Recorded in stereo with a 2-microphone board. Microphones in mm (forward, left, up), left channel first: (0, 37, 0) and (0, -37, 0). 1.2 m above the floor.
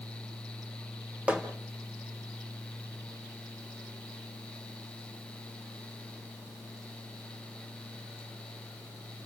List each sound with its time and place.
1.3 s hammering: 15° right (ahead or behind), 1.8 m